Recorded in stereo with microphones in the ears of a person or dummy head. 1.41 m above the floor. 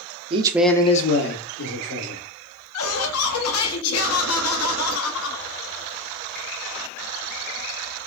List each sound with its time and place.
0.3 s a man speaking: 30° right (ahead or behind), 0.7 m; by 2.2 s 80° left, 1.7 m
2.7 s laughter: 80° left, 0.9 m